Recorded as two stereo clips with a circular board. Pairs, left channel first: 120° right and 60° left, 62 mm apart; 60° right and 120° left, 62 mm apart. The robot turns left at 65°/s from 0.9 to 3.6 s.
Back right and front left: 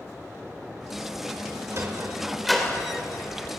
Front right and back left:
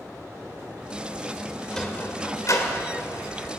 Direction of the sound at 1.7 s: 20° left.